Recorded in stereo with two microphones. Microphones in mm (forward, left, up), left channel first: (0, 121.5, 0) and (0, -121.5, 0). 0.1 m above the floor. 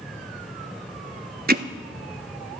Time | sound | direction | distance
1.5 | hammering | 40° right (ahead or behind) | 0.6 m